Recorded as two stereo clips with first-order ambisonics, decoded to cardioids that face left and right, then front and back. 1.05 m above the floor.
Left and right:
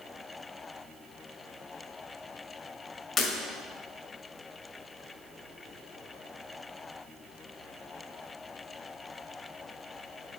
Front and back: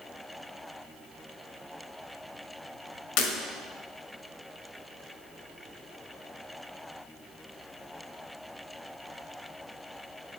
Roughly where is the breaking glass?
Ahead.